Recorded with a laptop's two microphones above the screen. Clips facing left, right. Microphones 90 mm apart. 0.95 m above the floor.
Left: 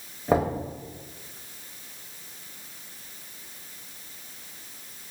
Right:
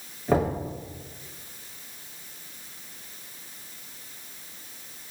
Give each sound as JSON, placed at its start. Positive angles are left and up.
{"t": 0.3, "sound": "knocking", "side_deg": 20, "distance_m": 0.7}